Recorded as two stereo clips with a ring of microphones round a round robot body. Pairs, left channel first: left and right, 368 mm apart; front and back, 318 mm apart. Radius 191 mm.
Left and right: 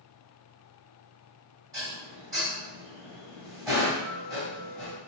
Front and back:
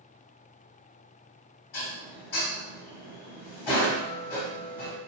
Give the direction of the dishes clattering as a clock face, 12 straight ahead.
12 o'clock.